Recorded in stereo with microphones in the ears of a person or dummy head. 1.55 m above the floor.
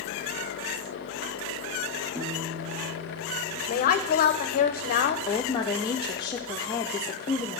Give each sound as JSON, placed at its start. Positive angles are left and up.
{"t": 2.1, "sound": "a piano", "side_deg": -60, "distance_m": 2.5}
{"t": 3.7, "sound": "a woman speaking", "side_deg": 50, "distance_m": 0.8}
{"t": 5.3, "sound": "a woman speaking", "side_deg": 25, "distance_m": 0.6}